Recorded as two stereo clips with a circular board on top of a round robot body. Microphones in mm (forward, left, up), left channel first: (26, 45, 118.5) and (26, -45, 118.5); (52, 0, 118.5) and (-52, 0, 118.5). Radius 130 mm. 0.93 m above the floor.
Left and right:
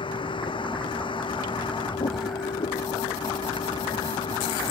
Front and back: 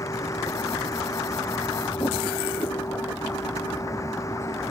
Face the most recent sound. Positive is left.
turn(degrees=60)